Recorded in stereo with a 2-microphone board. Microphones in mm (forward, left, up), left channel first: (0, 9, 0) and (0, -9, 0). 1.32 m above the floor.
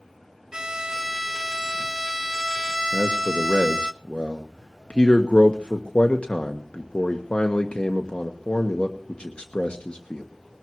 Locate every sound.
0.5 s a violin: 35° right (ahead or behind), 0.5 m
2.9 s a man speaking: 70° left (ahead or behind), 1.3 m